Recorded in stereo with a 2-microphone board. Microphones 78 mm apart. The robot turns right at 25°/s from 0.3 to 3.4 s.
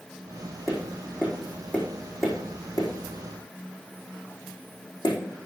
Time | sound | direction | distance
0.7 | tapping | 5° right (ahead or behind) | 4.5 m